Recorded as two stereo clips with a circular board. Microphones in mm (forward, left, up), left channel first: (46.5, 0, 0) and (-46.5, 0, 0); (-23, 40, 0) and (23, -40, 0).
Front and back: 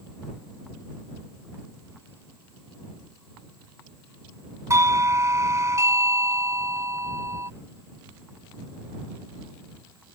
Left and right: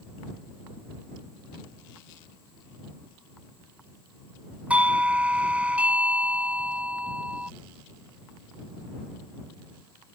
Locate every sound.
4.7 s a doorbell: 135° right